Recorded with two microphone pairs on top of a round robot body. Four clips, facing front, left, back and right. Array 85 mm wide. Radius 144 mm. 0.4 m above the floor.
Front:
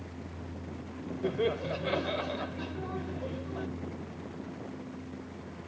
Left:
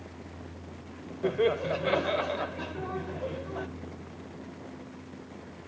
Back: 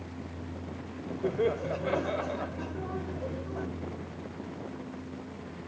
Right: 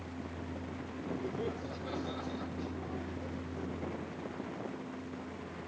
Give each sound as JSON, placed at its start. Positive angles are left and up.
{"t": 1.2, "sound": "laughter", "azimuth_deg": 95}